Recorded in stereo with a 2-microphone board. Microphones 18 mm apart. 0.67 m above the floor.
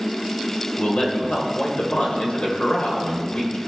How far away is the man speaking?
About 2.5 m.